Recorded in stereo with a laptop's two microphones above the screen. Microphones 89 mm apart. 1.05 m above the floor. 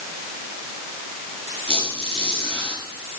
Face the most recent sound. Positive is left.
turn(degrees=80)